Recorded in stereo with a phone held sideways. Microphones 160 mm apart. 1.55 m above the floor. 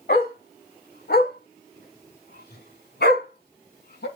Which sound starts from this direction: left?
A dog barking, at 0.1 s.